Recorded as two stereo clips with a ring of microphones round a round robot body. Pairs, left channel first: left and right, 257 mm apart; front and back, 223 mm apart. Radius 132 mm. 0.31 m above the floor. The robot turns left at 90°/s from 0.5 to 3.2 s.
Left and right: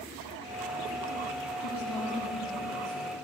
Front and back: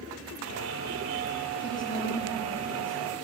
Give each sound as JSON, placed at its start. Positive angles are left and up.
{"t": 1.6, "sound": "a woman speaking", "azimuth_deg": 70, "distance_m": 8.0}